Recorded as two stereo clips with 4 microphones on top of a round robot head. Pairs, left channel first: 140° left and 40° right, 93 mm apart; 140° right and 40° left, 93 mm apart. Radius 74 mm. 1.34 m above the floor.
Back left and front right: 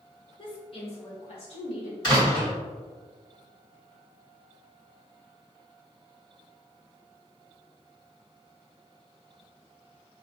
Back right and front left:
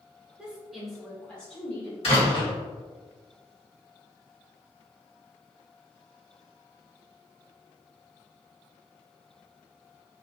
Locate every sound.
0.4 s a woman speaking: 115° left, 0.8 m; by 1.9 s 145° left, 1.6 m
2.0 s a door slam: 170° right, 1.2 m